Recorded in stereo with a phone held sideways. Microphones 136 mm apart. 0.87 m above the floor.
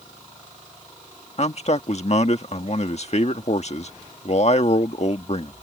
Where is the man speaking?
55° left (ahead or behind).